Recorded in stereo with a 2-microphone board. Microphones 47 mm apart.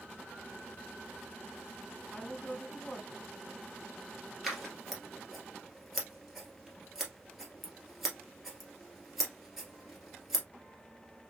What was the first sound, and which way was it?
A woman speaking, 15° left (ahead or behind).